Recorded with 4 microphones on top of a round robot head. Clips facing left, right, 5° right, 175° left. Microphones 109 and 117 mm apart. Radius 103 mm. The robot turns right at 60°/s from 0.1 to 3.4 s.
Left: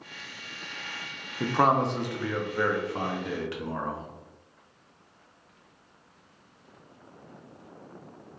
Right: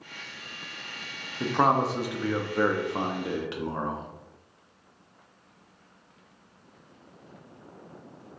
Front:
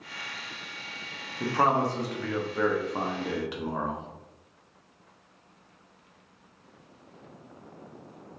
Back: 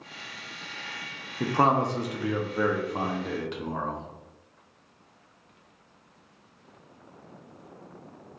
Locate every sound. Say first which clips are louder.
1.4 s a man speaking: even, back 1 dB; 165° left, 0.6 m; by 4.1 s 75° right, 0.6 m